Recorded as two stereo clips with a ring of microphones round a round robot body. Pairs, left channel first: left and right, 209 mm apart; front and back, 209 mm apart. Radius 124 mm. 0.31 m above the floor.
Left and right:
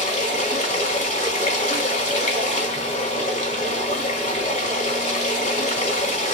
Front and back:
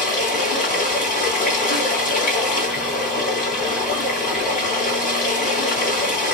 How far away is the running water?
About 1.8 m.